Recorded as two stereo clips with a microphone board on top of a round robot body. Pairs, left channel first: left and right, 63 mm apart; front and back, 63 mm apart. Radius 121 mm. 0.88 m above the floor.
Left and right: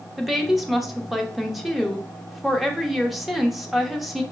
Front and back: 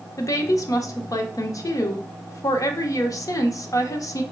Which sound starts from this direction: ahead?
A woman speaking, at 0.2 s.